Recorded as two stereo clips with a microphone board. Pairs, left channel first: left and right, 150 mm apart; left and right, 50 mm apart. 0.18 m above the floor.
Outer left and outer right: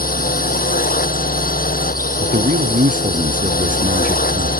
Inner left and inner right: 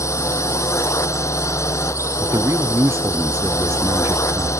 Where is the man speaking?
60° right (ahead or behind).